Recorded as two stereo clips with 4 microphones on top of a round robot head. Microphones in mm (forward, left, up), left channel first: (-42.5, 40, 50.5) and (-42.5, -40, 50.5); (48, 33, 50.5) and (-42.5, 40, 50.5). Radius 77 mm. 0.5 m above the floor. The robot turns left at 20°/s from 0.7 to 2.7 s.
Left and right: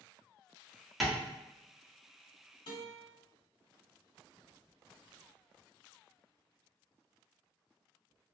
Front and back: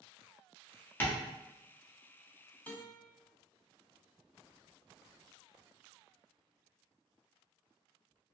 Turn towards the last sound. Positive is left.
turn(degrees=70)